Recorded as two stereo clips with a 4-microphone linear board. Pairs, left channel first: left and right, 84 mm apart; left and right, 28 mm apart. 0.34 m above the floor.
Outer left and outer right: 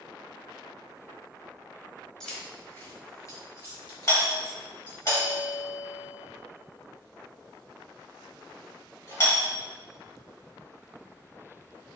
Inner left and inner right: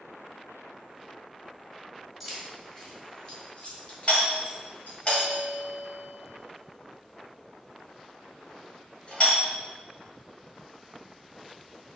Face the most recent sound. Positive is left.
turn(degrees=40)  # may be behind; listen again after turning